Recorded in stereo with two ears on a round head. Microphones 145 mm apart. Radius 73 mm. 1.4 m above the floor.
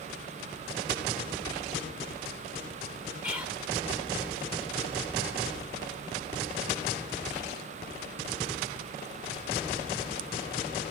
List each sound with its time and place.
3.2 s whispering: 10° right (ahead or behind), 3.5 m